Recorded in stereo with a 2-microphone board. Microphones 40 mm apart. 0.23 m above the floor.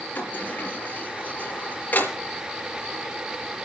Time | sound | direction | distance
0.1 | a sliding door | 40° left (ahead or behind) | 4 m